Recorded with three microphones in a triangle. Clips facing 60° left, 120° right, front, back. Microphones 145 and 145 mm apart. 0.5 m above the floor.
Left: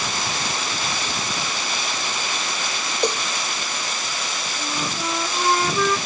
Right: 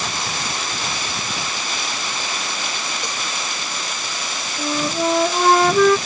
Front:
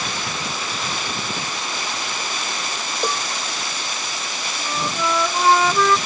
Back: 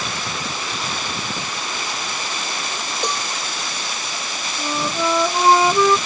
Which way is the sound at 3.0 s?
80° left.